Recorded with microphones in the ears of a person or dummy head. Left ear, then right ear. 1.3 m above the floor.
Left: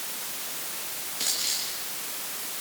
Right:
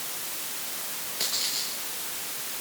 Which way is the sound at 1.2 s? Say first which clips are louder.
Even; 5° right (ahead or behind).